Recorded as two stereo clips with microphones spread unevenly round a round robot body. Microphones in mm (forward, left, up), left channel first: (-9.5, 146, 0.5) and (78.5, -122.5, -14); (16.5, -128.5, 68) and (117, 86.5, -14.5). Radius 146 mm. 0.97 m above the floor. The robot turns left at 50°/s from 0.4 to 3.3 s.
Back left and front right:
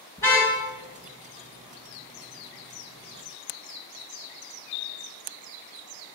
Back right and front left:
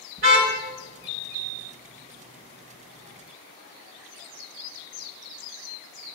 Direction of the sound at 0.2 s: 25° left.